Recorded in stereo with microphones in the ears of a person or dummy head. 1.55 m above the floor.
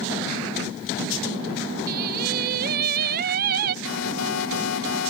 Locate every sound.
1.9 s singing: 55° right (ahead or behind)
3.9 s an alarm: 90° left